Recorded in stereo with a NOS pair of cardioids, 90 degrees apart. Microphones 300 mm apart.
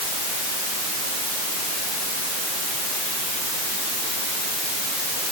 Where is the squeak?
I don't hear a squeak.